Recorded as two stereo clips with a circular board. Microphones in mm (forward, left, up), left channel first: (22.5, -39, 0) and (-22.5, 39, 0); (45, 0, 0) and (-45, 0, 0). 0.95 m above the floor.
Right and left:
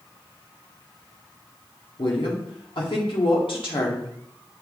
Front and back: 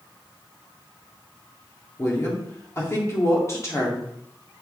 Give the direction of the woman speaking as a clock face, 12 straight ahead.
2 o'clock.